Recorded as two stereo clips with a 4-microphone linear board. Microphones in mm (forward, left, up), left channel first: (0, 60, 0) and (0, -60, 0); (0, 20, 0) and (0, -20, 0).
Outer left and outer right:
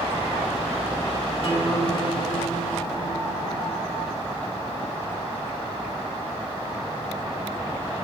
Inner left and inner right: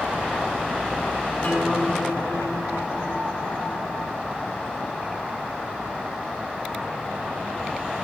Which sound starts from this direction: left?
A guitar, at 1.4 s.